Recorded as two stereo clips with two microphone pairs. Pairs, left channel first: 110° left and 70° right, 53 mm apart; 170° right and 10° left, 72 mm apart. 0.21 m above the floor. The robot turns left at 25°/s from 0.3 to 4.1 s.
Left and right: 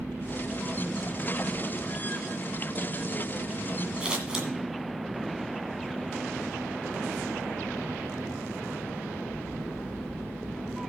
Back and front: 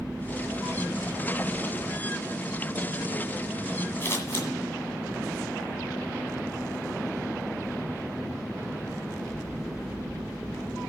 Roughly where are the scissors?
Behind right.